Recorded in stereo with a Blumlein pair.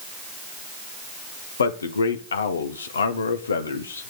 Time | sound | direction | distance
1.6 | a man speaking | 70° left | 1.8 m